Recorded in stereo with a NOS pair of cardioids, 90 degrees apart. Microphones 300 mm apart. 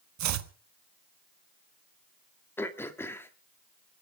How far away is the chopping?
About 1.4 m.